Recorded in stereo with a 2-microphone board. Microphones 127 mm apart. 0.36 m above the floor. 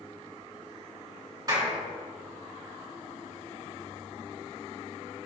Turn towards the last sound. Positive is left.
turn(degrees=-30)  # may be behind; listen again after turning